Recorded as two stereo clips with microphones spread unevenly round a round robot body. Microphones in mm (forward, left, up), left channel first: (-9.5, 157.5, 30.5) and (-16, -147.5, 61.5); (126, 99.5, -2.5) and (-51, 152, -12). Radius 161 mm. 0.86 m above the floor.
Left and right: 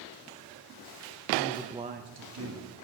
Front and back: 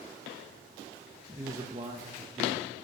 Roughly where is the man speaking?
Left.